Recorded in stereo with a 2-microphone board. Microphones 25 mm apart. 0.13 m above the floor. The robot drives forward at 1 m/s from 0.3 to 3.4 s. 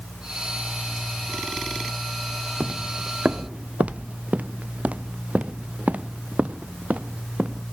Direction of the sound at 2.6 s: 70° right (ahead or behind).